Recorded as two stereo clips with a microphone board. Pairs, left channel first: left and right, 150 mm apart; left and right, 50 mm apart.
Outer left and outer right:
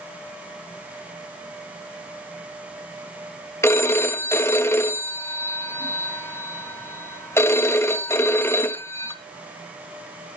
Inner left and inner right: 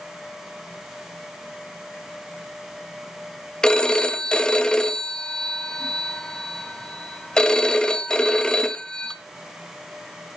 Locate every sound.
3.6 s a phone ringing: 15° left (ahead or behind), 1.2 m